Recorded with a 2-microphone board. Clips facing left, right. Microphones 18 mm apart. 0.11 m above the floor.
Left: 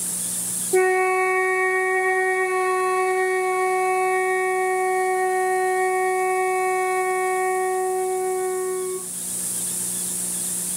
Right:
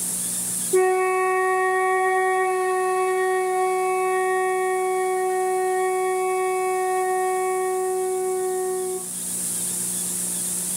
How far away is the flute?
About 1.4 m.